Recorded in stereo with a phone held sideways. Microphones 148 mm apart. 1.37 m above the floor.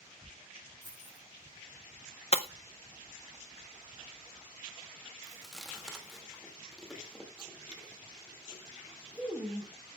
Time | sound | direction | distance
0.8 | keys jangling | 50° right (ahead or behind) | 3.5 m
2.3 | breaking glass | 45° left (ahead or behind) | 0.6 m
5.2 | chewing | centre (ahead or behind) | 2.5 m